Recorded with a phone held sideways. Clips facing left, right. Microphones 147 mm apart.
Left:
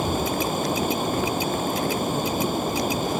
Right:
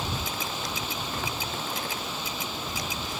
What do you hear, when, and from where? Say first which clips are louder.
0.0 s running water: left 10 dB; 50° left (ahead or behind)